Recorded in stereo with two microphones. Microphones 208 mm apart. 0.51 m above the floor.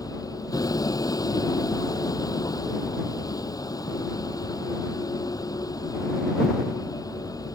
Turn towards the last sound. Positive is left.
turn(degrees=15)  # may be behind; listen again after turning